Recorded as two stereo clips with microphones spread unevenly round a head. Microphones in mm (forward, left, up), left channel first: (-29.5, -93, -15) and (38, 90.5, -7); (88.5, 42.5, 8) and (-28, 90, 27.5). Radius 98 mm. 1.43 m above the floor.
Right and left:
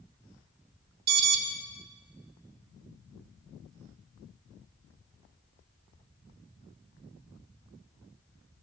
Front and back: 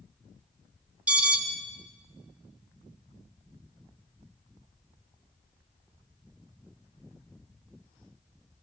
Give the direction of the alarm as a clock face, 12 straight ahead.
9 o'clock.